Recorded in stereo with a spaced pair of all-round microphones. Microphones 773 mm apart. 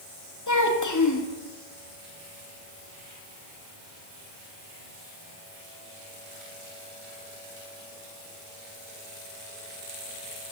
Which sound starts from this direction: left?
A child speaking, at 0.5 s.